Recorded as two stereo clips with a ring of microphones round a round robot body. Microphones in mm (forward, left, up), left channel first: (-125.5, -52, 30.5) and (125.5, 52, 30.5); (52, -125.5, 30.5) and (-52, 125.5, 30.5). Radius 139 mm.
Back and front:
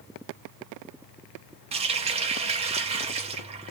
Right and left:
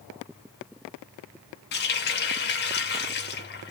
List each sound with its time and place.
1.7 s a running tap: 35° right, 0.9 m